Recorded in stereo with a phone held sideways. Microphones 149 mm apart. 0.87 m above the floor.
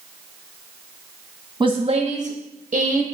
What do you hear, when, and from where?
1.6 s a woman speaking: 25° right (ahead or behind), 0.8 m; by 3.0 s 50° right (ahead or behind), 1.4 m